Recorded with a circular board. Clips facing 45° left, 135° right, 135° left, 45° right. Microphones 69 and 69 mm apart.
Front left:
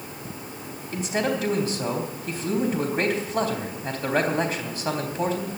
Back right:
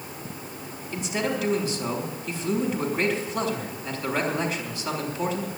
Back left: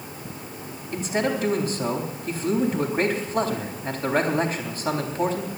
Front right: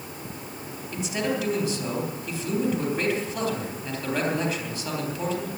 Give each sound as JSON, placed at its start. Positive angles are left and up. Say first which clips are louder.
{"t": 0.9, "sound": "a man speaking", "louder": "front left 2 dB, back left 3 dB", "azimuth_deg": 90, "distance_m": 3.5}